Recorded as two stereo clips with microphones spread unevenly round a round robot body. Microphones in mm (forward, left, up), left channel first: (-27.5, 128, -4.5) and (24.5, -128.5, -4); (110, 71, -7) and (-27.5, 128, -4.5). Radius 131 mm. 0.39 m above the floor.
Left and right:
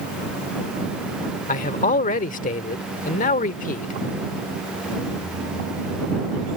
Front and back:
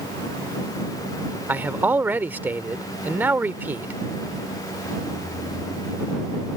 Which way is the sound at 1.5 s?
95° left.